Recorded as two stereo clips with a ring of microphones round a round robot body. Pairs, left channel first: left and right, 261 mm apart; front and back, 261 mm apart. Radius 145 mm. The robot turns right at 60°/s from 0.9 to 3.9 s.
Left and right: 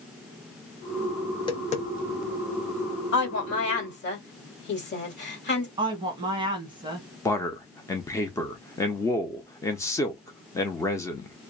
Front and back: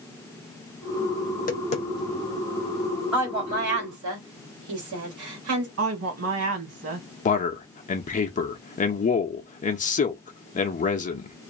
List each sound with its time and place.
1.3 s tapping: 20° left, 0.7 m; by 2.4 s 85° left, 0.7 m
3.1 s a woman speaking: 95° left, 1.6 m; by 5.7 s 140° left, 1.6 m
5.8 s a woman speaking: 160° right, 1.6 m
7.2 s a man speaking: 20° left, 0.6 m